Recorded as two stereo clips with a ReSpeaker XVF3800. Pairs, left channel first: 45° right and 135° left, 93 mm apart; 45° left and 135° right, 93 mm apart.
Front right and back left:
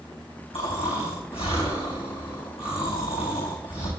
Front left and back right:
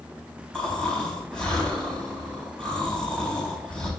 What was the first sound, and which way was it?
Snoring, 35° right.